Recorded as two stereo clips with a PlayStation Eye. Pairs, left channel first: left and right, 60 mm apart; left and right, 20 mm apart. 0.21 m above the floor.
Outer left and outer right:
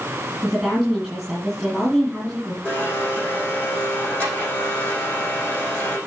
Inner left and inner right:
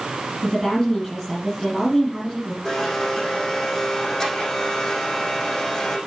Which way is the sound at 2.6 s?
25° left (ahead or behind).